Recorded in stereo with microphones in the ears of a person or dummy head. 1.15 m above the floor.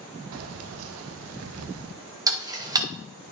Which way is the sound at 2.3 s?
15° right (ahead or behind).